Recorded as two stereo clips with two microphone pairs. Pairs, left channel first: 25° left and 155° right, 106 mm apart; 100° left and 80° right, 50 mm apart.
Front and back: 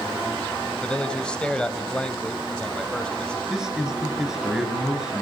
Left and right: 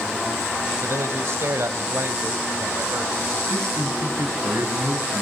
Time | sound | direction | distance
0.8 | a man speaking | 55° right | 2.5 m
3.5 | a man speaking | 70° right | 9 m